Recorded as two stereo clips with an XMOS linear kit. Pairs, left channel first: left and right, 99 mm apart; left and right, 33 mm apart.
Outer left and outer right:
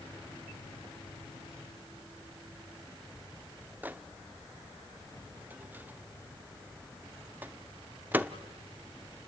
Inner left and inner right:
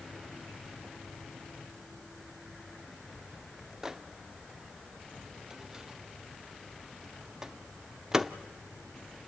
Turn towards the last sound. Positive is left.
turn(degrees=-20)  # may be behind; listen again after turning